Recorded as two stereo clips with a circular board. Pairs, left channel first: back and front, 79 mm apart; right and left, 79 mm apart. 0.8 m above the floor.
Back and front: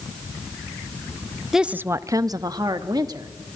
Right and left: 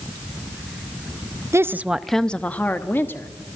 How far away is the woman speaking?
About 0.5 m.